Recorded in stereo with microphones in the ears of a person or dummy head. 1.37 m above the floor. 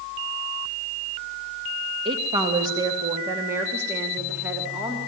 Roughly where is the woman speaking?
Right.